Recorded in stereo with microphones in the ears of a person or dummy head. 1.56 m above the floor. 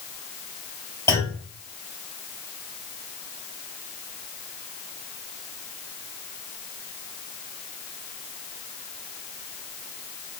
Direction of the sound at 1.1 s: 10° left (ahead or behind).